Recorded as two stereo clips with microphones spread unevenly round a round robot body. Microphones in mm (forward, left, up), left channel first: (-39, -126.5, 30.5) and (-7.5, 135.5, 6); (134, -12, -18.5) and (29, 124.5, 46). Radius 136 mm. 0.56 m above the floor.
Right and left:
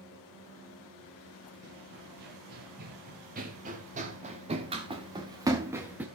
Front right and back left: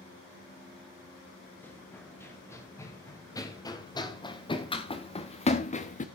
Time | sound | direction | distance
1.6 | running footsteps | 30° left | 4 m